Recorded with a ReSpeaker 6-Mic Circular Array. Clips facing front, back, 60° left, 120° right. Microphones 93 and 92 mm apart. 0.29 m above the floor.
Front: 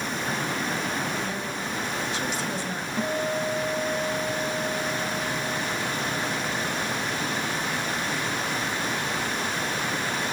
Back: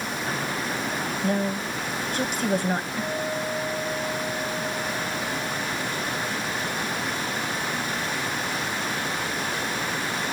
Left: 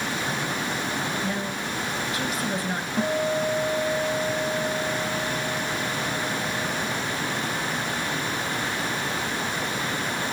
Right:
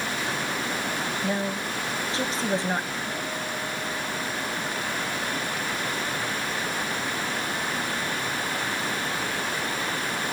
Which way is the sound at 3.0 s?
75° left.